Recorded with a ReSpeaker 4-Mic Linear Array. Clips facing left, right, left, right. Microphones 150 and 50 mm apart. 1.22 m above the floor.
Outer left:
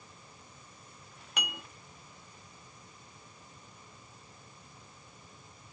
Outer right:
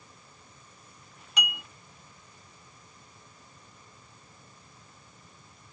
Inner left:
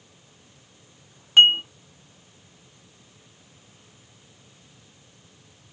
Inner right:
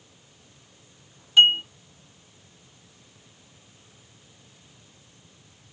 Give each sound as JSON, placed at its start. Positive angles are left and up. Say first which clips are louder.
{"t": 1.4, "sound": "dishes clattering", "louder": "outer right 2 dB, inner left 2 dB", "side_deg": 55, "distance_m": 1.6}